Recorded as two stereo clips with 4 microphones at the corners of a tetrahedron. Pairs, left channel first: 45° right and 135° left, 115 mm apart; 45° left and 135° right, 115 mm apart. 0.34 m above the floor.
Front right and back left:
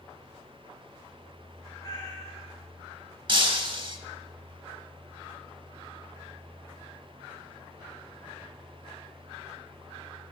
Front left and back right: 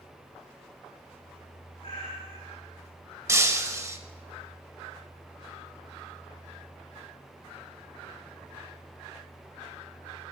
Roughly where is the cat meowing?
Ahead.